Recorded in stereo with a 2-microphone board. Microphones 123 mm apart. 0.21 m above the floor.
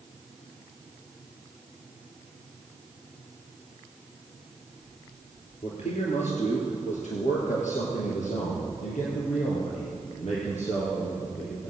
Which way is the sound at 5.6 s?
60° left (ahead or behind).